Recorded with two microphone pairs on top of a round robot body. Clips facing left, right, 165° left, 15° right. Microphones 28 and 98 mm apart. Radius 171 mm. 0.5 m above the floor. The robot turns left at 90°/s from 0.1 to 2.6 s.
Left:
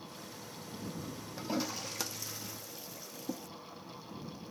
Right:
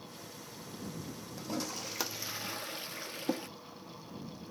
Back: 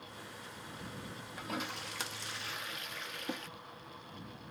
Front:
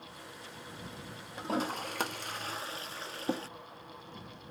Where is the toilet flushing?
50° left; by 3.5 s 65° right.